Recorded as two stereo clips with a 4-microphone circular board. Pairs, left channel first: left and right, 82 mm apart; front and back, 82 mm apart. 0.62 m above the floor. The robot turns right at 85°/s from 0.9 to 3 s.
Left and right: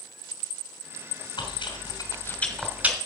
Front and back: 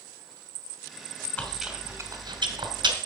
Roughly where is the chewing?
Left.